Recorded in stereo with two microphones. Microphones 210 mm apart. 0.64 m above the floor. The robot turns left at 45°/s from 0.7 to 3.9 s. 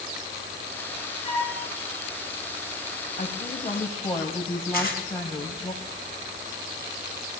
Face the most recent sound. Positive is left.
turn(degrees=-90)